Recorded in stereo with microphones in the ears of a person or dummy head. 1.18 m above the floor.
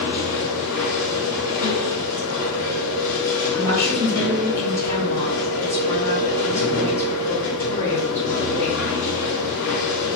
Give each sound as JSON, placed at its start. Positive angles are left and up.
{"t": 0.0, "sound": "a machine running", "side_deg": 70, "distance_m": 1.6}
{"t": 3.5, "sound": "a woman speaking", "side_deg": 15, "distance_m": 0.8}